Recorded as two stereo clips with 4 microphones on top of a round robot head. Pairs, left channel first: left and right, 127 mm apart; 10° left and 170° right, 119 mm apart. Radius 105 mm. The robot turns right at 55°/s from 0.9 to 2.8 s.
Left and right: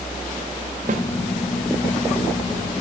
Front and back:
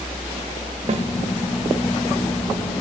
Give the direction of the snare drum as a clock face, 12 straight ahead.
4 o'clock.